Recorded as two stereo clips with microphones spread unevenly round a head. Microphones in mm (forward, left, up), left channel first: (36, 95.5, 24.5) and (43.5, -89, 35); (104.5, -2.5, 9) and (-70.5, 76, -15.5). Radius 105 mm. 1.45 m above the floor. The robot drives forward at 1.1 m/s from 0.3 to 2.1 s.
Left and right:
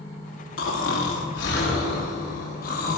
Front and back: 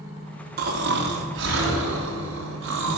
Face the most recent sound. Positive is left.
turn(degrees=140)